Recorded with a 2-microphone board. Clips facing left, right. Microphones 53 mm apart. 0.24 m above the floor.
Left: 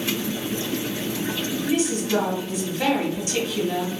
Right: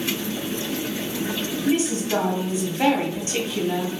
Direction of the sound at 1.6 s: 30° right (ahead or behind).